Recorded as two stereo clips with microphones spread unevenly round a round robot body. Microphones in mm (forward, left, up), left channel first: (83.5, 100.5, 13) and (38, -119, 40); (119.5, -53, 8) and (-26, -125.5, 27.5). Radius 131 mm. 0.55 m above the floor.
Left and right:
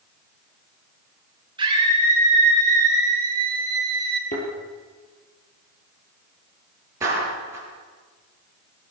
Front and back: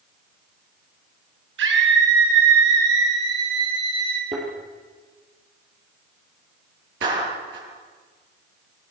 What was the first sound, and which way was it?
A scream, 175° right.